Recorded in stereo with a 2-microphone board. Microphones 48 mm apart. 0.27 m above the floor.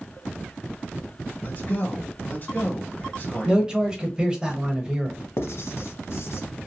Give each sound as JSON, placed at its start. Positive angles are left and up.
{"t": 1.4, "sound": "a man speaking", "side_deg": 40, "distance_m": 1.4}
{"t": 3.5, "sound": "a man speaking", "side_deg": -20, "distance_m": 0.9}
{"t": 5.4, "sound": "writing", "side_deg": 60, "distance_m": 0.6}